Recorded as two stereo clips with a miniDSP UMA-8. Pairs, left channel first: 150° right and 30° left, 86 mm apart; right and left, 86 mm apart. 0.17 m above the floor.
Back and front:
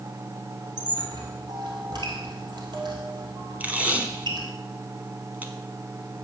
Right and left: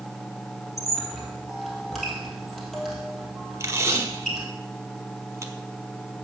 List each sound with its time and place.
0.8 s a squeak: straight ahead, 2 m
3.6 s tape being pulled: 90° left, 1.1 m